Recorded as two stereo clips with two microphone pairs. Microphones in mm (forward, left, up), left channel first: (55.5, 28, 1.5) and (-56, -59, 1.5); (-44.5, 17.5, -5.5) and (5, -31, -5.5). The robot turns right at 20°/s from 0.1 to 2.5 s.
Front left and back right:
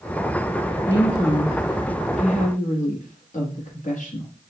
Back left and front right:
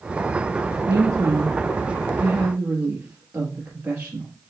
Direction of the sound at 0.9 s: 15° right.